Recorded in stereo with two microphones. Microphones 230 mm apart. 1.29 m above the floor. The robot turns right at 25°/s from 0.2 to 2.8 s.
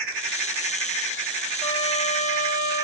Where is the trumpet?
20° left (ahead or behind), 0.8 m; by 2.8 s 45° left (ahead or behind), 0.8 m.